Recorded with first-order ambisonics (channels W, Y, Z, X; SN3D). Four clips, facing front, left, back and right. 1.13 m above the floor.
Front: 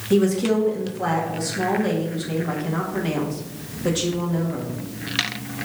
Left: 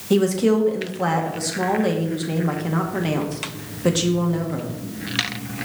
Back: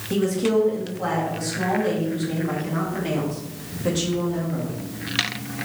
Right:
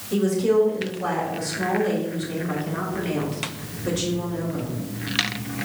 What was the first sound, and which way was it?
A woman speaking, 80° left.